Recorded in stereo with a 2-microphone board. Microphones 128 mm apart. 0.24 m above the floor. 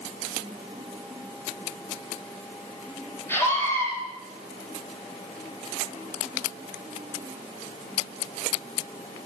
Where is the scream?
15° left (ahead or behind), 9.5 m.